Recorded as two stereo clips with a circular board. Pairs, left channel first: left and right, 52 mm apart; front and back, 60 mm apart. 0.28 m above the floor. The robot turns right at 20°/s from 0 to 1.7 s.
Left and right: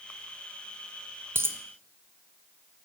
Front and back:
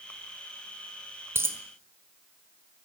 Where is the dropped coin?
135° right, 1.1 m; by 1.6 s 130° right, 1.1 m.